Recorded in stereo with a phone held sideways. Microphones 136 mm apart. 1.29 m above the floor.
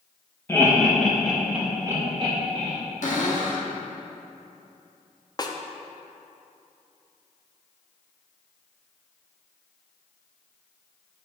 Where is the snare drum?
30° left (ahead or behind), 0.5 m.